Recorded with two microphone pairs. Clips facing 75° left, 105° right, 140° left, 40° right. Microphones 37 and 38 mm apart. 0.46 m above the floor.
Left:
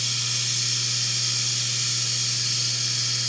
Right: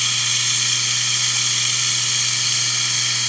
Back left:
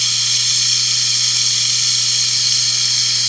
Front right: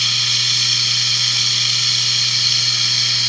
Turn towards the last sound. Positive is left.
turn(degrees=-120)